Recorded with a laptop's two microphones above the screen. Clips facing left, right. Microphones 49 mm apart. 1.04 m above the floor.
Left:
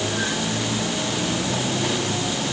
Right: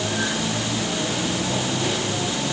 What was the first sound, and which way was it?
Only background noise.